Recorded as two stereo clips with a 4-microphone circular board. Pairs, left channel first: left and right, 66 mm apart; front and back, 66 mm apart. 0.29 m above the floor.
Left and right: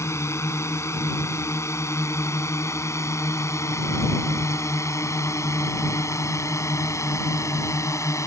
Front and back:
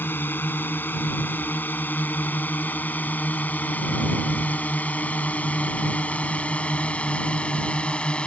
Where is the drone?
55° left; by 8.3 s 70° left.